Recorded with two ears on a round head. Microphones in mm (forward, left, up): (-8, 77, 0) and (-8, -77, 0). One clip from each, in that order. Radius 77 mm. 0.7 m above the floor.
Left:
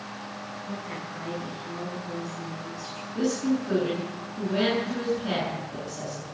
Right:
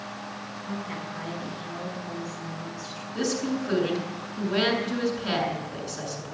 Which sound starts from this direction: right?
A woman speaking, at 3.1 s.